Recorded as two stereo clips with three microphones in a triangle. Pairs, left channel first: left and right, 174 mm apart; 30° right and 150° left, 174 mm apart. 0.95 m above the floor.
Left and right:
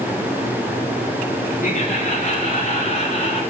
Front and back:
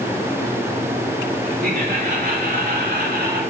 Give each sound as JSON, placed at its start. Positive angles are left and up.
{"t": 1.6, "sound": "laughter", "azimuth_deg": 125, "distance_m": 3.0}